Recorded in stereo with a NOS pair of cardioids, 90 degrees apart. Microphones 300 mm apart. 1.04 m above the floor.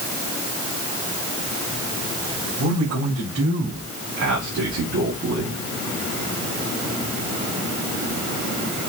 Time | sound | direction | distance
2.6 | a man speaking | 70° right | 4 m